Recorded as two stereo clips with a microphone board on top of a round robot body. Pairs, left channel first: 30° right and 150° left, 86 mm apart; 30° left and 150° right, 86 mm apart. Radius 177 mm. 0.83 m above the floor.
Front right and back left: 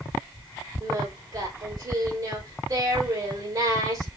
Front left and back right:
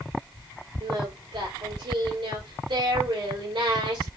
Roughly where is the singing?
Behind.